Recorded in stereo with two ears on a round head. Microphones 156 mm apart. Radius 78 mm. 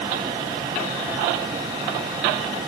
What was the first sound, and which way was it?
Only background noise.